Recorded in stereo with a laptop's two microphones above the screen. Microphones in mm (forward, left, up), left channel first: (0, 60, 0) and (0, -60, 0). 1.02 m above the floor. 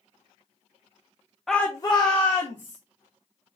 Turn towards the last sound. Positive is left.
turn(degrees=50)  # may be behind; listen again after turning